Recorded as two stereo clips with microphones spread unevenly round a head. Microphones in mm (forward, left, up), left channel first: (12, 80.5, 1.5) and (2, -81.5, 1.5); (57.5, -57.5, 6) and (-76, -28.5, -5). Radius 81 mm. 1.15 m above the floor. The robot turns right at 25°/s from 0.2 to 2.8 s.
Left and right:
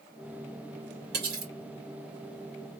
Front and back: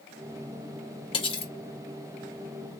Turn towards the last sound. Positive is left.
turn(degrees=-25)